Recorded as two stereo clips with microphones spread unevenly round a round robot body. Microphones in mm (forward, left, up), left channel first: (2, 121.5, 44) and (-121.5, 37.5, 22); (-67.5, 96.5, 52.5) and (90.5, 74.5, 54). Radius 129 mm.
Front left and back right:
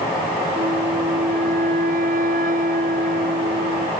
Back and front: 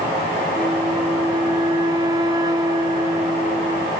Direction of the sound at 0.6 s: 85° right.